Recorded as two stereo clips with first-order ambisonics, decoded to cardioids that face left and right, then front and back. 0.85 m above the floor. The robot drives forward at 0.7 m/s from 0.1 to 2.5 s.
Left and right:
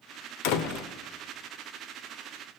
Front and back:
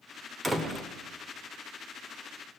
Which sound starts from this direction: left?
A door slam, at 0.4 s.